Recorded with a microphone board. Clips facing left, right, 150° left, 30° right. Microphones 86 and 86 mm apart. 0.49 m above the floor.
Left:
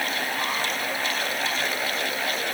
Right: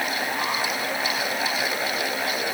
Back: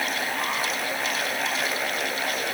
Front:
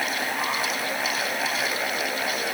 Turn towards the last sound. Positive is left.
No sound to turn to.